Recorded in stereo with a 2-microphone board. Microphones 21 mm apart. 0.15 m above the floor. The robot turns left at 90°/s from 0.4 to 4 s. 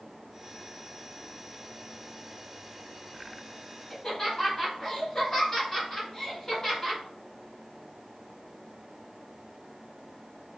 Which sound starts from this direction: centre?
Laughter, at 3.9 s.